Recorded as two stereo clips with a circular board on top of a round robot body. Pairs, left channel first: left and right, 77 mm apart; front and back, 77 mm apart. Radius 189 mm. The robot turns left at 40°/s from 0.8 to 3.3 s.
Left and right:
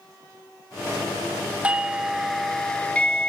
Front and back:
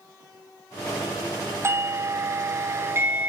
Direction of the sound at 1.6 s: 155° right.